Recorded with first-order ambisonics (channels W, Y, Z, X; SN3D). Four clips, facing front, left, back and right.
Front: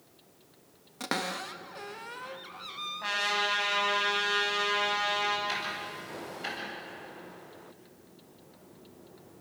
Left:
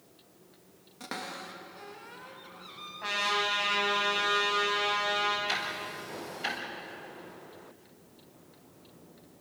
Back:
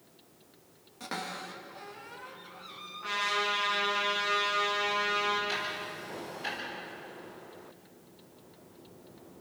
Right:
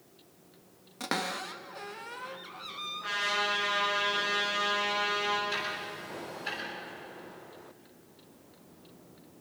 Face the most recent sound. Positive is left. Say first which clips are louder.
# left 1 dB, even
turn(degrees=70)